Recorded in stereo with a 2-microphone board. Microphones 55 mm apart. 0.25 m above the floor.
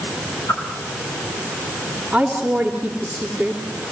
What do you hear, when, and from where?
0.5 s a whoosh: 60° left (ahead or behind), 7.5 m
2.1 s a woman speaking: 10° right (ahead or behind), 3.5 m